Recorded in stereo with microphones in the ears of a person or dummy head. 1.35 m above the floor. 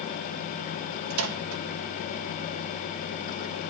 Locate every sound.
1.1 s a microwave: 85° right, 1.7 m